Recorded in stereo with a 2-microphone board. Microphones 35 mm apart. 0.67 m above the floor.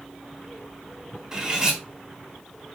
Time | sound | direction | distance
1.3 | cutlery clinking | 15° right (ahead or behind) | 3.5 m